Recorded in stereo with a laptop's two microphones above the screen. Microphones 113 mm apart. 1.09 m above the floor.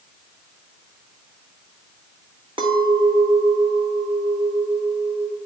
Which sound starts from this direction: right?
A clink, at 2.6 s.